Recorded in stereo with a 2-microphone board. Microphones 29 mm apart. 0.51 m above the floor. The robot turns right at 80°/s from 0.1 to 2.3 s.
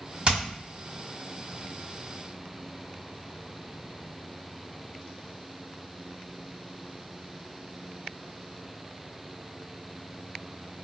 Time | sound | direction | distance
0.2 | hammering | 35° right (ahead or behind) | 1.8 m